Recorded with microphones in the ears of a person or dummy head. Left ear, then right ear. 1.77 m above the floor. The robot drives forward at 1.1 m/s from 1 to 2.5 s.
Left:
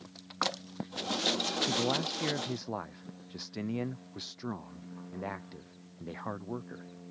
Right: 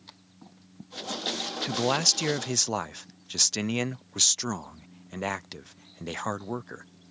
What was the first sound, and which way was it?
A man speaking, 55° right (ahead or behind).